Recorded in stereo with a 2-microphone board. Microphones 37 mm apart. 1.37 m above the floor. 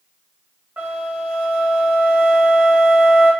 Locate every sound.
0.8 s a flute: 75° right (ahead or behind), 1.8 m